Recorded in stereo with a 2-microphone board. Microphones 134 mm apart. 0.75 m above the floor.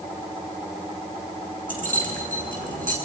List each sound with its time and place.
1.7 s keys jangling: 85° right, 6.5 m